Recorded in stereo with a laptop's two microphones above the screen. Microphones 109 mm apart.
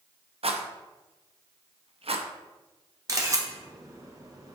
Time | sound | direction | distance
0.4 | a rattle | 60° right (ahead or behind) | 0.5 m
3.1 | a camera shutter | 30° right (ahead or behind) | 1.0 m